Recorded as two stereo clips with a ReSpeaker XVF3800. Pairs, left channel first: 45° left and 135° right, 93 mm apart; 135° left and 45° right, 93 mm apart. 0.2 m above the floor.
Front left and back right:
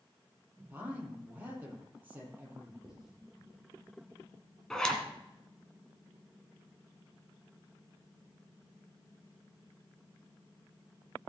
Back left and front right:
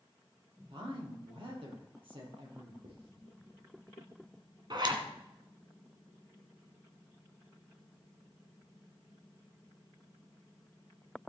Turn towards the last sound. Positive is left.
turn(degrees=-35)